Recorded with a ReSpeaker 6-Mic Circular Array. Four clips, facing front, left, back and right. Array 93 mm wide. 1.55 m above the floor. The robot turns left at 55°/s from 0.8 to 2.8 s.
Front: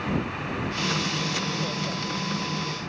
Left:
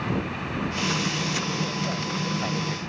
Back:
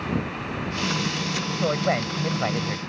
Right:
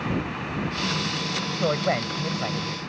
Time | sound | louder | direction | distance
1.6 | a woman speaking | right 5 dB, back 7 dB | 125° right | ?